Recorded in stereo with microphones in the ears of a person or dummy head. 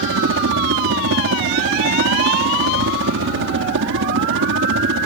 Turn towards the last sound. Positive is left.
turn(degrees=-60)  # may be behind; listen again after turning